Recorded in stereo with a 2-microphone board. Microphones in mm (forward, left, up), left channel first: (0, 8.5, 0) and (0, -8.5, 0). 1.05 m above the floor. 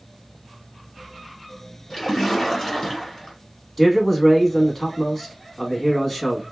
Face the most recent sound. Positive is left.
turn(degrees=20)  # may be behind; listen again after turning